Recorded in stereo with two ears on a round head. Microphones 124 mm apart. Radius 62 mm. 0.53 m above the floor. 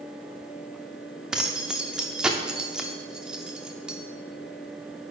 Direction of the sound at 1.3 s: 5° right (ahead or behind).